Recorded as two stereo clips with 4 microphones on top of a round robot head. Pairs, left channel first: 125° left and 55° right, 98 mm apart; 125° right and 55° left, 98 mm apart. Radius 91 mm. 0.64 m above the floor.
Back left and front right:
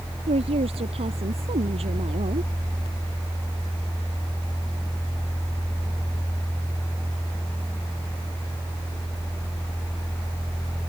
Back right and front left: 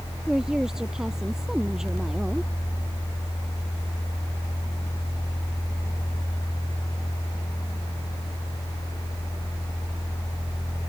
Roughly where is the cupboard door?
No cupboard door in this recording.